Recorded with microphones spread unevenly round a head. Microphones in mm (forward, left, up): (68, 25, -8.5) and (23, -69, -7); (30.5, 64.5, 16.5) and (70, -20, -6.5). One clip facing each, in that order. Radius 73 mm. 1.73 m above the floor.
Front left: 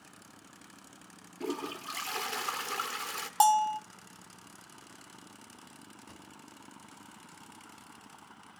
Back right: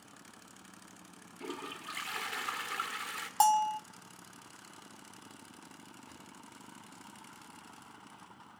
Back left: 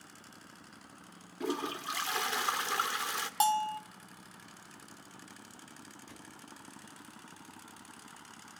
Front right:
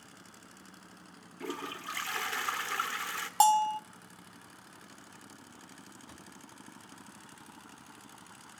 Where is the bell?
10° right, 0.8 m.